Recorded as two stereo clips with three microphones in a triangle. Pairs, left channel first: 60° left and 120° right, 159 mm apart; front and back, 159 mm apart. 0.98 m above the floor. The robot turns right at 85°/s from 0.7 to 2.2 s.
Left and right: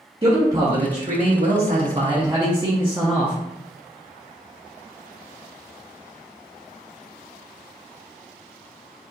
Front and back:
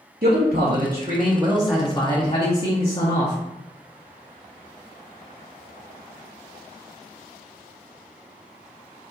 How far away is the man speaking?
About 1.0 m.